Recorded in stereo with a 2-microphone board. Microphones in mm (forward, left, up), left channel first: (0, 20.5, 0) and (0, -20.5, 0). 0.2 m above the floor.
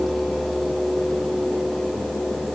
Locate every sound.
Only background noise.